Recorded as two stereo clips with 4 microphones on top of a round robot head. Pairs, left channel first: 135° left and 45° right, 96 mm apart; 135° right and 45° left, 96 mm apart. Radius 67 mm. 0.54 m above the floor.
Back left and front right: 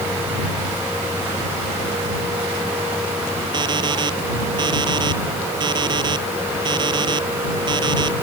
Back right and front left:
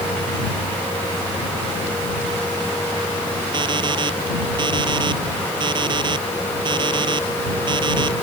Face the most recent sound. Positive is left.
turn(degrees=0)